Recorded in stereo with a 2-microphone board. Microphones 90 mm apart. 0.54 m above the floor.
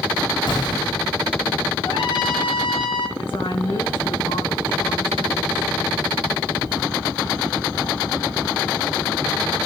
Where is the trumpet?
65° left (ahead or behind), 5.5 m.